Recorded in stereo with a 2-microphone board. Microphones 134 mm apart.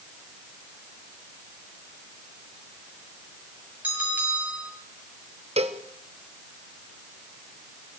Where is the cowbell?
50° right (ahead or behind), 1.2 m.